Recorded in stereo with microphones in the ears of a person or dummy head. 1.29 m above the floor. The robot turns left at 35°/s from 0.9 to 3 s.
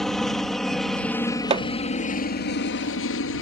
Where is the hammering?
30° right (ahead or behind); by 1.7 s 25° right (ahead or behind).